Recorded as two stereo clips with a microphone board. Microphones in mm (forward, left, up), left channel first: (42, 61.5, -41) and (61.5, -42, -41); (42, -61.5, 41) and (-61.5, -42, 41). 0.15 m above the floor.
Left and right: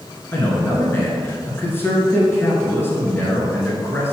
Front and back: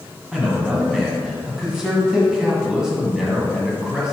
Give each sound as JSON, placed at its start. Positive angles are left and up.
{"t": 0.3, "sound": "a man speaking", "azimuth_deg": 95, "distance_m": 1.5}